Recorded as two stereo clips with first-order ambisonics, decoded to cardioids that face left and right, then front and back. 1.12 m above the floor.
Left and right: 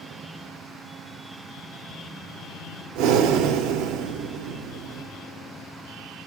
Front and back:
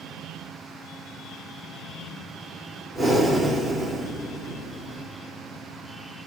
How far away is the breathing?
About 1.0 m.